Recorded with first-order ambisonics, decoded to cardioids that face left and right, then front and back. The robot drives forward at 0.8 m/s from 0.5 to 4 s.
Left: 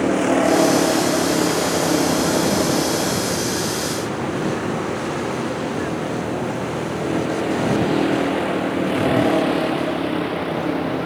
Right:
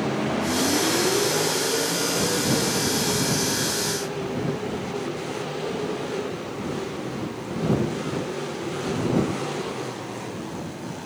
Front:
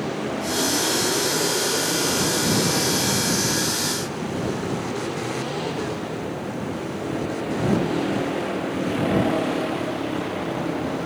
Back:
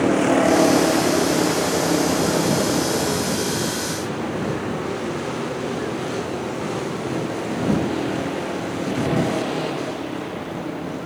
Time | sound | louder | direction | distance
0.0 | a vehicle | left 8 dB, back 10 dB | 135° left | ?